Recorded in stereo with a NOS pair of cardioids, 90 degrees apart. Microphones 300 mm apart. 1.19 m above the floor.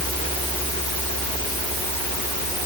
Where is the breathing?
No breathing in this recording.